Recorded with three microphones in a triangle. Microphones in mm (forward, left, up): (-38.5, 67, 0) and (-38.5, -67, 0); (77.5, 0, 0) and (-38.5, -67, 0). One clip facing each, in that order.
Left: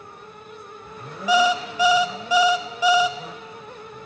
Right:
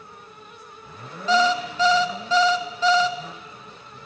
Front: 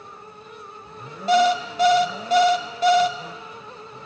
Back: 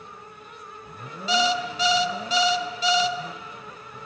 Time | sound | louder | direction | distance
1.3 | an alarm clock | left 1 dB, front 6 dB | 15° left | 0.5 m